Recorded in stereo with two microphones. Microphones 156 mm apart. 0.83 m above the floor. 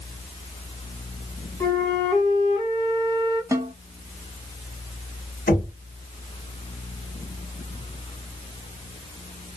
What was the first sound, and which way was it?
A flute, 20° left (ahead or behind).